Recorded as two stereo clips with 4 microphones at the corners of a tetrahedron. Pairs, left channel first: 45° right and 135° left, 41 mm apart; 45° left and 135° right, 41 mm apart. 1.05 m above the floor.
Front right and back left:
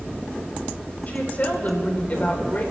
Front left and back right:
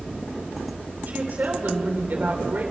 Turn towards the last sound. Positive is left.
turn(degrees=-95)